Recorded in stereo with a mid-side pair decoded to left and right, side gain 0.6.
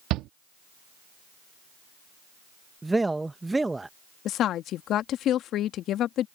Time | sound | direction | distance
0.1 | a shout | 65° right | ?
2.8 | a man speaking | 10° right | ?
4.2 | a woman speaking | 55° left | ?